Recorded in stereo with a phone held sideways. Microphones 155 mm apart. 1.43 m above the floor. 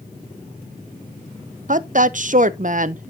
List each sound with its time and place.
1.7 s a woman speaking: 55° right (ahead or behind), 0.5 m